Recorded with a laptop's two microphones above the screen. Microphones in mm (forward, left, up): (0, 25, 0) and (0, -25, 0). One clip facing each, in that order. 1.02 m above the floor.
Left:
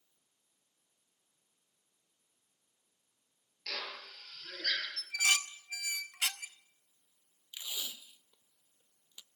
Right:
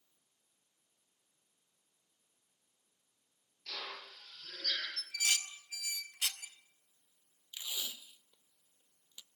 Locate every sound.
3.7 s a drill: 75° left (ahead or behind), 7.5 m
5.0 s dishes clattering: 85° left, 0.9 m
7.5 s tape being pulled: 15° left (ahead or behind), 0.5 m